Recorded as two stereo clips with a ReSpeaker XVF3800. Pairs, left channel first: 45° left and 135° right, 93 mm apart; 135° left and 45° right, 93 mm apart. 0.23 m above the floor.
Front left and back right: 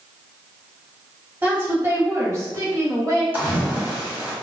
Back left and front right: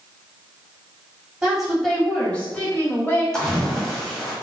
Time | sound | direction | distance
1.4 | a woman speaking | 105° right | 1.0 m
3.3 | a splash | 150° right | 1.0 m